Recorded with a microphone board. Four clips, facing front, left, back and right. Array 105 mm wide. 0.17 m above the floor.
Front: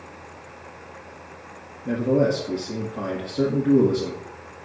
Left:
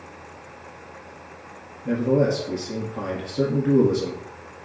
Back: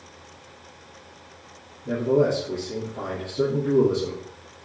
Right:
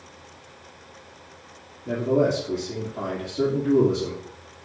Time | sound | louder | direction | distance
1.9 | a man speaking | left 1 dB, even | 60° left | 3.5 m